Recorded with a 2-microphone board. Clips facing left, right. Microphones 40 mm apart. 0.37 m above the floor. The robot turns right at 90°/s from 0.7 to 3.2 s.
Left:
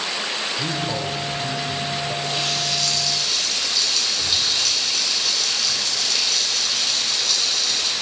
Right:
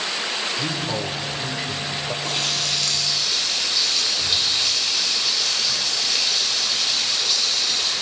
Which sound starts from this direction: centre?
A man speaking, at 0.6 s.